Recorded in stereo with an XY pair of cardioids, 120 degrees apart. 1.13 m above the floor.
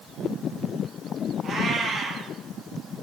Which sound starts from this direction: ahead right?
A cat meowing, at 1.4 s.